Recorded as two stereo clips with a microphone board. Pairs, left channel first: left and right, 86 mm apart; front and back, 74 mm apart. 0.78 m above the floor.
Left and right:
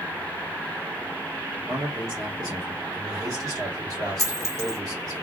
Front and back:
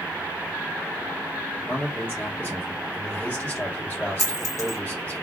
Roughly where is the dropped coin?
Ahead right.